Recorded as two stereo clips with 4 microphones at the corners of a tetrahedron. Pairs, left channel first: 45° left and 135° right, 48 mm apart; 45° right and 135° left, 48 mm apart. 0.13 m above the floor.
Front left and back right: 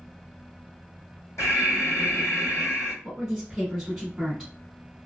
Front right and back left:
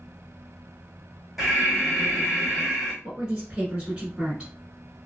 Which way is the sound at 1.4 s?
50° left.